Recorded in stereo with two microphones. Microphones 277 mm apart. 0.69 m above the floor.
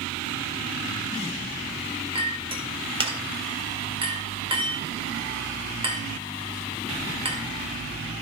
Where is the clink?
20° right (ahead or behind), 1.9 m.